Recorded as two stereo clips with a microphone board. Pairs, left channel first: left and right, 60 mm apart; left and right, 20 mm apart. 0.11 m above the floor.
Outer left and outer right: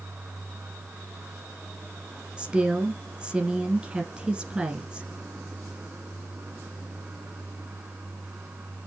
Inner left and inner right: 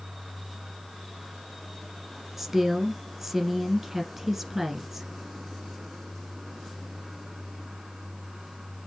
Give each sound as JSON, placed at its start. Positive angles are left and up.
{"t": 2.4, "sound": "a woman speaking", "side_deg": -15, "distance_m": 1.6}